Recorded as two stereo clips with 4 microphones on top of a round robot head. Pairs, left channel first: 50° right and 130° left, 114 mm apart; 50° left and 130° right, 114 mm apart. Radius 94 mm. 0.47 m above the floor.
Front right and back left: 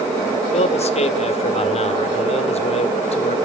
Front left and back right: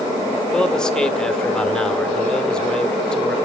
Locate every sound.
0.5 s a man speaking: 35° right, 1.6 m